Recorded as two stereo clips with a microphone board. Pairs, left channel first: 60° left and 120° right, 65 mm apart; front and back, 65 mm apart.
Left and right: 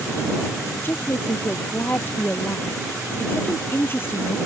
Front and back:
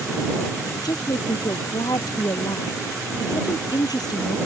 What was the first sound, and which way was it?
A woman speaking, 5° left.